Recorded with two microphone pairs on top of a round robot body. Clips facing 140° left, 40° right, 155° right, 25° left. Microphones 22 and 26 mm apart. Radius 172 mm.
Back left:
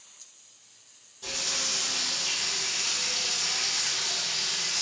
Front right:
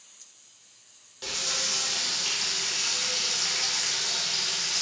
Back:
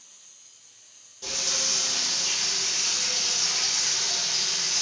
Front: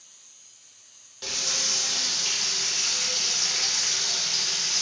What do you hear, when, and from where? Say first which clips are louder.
1.2 s frying: front right 1 dB, even; 5° right, 0.7 m